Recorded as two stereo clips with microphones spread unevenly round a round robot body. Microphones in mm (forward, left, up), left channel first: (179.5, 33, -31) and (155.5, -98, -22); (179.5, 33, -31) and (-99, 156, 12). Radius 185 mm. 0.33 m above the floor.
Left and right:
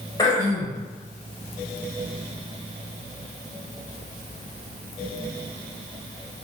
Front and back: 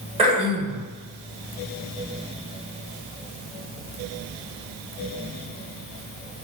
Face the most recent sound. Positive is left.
turn(degrees=85)